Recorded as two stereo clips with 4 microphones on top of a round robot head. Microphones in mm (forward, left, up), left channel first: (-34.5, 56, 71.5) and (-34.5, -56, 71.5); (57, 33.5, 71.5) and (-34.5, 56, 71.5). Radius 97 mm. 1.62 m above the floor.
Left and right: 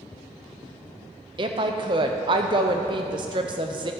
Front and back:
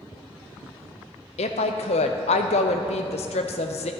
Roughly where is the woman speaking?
Ahead right.